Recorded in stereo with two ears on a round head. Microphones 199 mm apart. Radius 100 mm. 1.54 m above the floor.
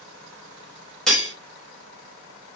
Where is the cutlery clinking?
5° left (ahead or behind), 0.9 m.